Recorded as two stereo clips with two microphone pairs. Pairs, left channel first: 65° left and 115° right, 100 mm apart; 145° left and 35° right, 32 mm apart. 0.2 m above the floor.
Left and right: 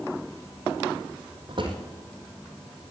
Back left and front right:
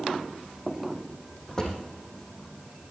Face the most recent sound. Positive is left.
turn(degrees=-150)